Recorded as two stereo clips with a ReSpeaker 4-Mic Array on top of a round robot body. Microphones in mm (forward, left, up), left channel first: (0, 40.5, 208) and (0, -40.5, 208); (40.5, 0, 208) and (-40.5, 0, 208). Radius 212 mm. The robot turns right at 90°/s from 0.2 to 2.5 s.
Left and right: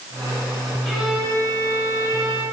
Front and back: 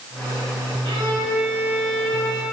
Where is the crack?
No crack in this recording.